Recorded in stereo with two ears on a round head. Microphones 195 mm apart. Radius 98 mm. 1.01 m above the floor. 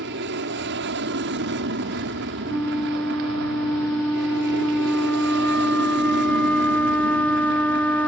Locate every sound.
0.0 s an aircraft: 55° right (ahead or behind)
2.5 s a flute: 5° left (ahead or behind)